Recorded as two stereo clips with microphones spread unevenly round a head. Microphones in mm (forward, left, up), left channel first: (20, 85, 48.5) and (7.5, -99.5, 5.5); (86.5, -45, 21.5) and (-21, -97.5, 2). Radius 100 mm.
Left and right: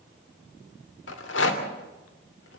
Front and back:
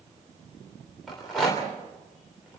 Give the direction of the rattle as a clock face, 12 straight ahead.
8 o'clock.